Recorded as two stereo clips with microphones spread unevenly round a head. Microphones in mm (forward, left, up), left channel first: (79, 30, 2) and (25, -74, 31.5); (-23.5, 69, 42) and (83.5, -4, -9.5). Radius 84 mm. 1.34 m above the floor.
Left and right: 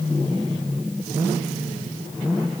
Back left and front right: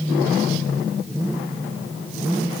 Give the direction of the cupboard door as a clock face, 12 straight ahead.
I don't hear a cupboard door.